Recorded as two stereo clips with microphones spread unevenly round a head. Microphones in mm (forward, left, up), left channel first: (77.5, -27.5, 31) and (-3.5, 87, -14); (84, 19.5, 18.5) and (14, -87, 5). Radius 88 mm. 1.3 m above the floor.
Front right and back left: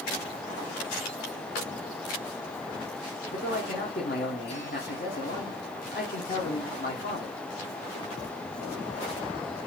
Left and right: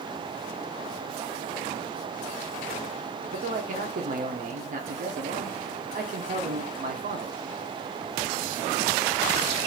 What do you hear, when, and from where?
3.3 s a man speaking: 105° right, 0.7 m